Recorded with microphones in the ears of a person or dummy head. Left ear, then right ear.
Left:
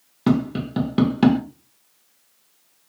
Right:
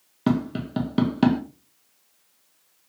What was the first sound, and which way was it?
Tapping, centre (ahead or behind).